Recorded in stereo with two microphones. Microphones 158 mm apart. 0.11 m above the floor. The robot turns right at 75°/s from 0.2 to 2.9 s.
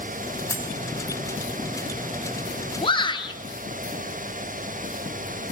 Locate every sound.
0.5 s cutlery clinking: 10° left (ahead or behind), 3.5 m; by 0.7 s 25° left (ahead or behind), 3.5 m
2.8 s a shout: 35° left (ahead or behind), 1.7 m; by 3.4 s 30° left (ahead or behind), 1.7 m